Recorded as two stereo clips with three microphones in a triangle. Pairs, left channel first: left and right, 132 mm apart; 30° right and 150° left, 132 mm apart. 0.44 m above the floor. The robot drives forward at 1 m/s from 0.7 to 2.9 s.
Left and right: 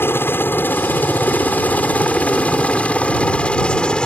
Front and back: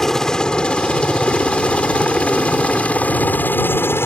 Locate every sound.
0.0 s a helicopter: 50° left; by 4.1 s 15° left